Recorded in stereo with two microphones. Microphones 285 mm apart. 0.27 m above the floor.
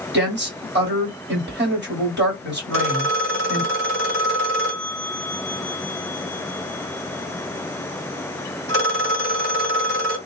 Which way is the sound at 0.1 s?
40° right (ahead or behind).